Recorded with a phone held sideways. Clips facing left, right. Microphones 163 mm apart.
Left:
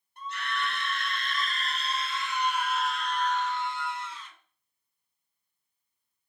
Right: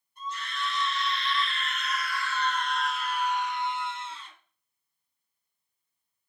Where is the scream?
70° left (ahead or behind), 1.6 m; by 4.3 s 30° right (ahead or behind), 1.6 m.